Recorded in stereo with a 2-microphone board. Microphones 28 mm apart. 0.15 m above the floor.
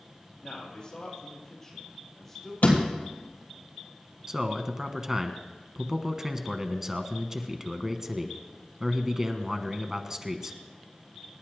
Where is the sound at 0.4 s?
35° left (ahead or behind), 5 m; by 2.5 s centre (ahead or behind), 5 m.